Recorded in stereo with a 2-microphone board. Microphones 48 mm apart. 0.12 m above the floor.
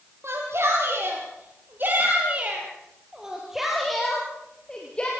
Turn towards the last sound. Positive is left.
turn(degrees=25)  # may be behind; listen again after turning